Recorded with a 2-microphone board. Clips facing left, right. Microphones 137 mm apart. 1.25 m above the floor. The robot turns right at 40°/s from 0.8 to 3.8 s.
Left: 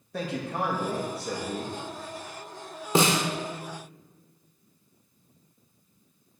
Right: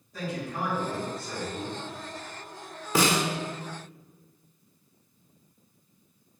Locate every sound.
0.1 s a man speaking: 70° left, 1.9 m; by 1.7 s 105° left, 1.9 m
3.0 s a snare drum: 25° left (ahead or behind), 0.9 m